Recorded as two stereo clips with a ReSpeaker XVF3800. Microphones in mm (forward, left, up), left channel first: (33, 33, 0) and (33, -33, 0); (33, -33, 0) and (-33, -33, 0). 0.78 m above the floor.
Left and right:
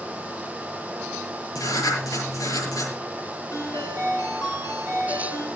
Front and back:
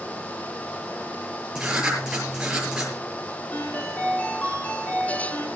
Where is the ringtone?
65° left, 7.5 m.